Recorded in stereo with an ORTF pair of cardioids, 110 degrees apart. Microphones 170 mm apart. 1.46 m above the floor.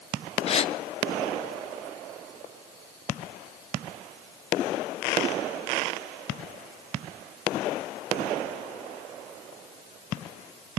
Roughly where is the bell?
No bell in this recording.